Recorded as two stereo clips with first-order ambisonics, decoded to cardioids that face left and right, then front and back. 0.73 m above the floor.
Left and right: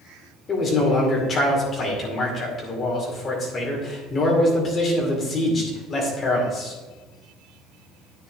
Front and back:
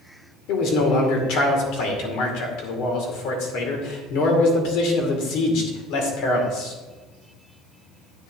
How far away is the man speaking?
About 2.5 m.